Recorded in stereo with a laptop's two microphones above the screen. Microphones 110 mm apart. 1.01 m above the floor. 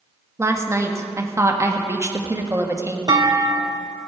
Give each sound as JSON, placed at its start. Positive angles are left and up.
{"t": 0.4, "sound": "a woman speaking", "side_deg": -25, "distance_m": 1.5}
{"t": 3.1, "sound": "a clunk", "side_deg": -40, "distance_m": 0.7}